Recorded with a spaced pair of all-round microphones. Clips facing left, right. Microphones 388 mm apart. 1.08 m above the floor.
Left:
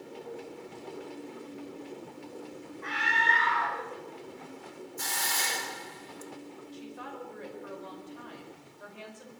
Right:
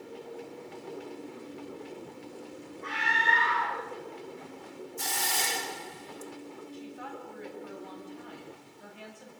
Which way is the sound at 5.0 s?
45° right (ahead or behind).